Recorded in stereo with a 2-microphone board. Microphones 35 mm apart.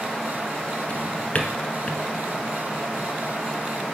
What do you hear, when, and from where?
0.9 s a drawer: 40° left (ahead or behind), 1.1 m